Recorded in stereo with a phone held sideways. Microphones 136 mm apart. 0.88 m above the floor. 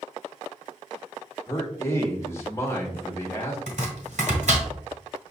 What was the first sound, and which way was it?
A man speaking, 20° left (ahead or behind).